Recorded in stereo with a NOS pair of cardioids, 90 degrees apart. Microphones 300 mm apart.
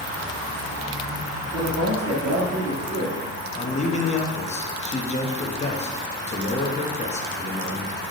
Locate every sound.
1.5 s a man speaking: 55° right, 2.5 m
3.5 s a man speaking: 20° left, 1.1 m